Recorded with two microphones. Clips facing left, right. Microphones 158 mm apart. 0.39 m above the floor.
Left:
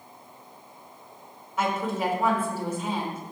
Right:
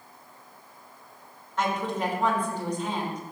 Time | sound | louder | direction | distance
1.6 | a woman speaking | left 1 dB | 5° left (ahead or behind) | 1.3 m